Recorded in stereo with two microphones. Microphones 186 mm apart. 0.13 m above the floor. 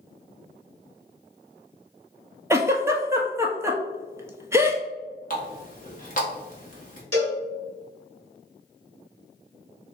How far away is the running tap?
About 1.1 m.